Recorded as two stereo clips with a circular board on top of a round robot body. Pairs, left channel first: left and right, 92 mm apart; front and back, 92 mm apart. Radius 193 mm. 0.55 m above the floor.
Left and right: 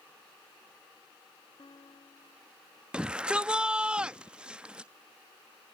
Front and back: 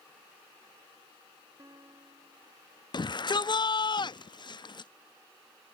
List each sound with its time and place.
1.6 s a guitar: 125° left
2.9 s a shout: 15° right